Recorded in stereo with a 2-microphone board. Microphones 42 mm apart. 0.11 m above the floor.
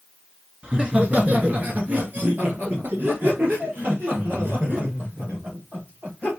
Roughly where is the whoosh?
No whoosh in this recording.